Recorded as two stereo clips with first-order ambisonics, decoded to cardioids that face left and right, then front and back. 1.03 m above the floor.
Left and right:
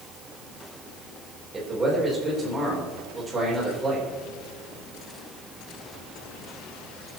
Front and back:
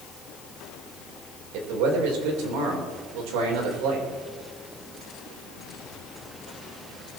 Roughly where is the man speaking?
Behind.